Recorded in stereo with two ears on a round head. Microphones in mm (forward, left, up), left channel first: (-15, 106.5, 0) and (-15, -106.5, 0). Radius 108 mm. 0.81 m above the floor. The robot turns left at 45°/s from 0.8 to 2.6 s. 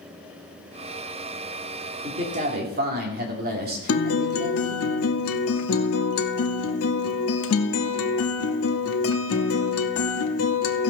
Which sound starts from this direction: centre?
A man speaking, at 2.0 s.